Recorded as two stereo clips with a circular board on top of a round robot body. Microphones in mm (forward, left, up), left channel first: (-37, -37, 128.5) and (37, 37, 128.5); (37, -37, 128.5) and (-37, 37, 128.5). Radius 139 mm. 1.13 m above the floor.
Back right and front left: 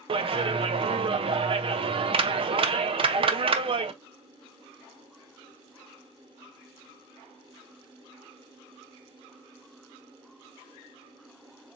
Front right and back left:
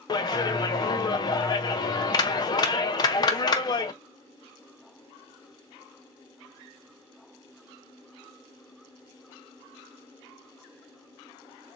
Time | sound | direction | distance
0.1 | a clap | 5° left | 0.6 m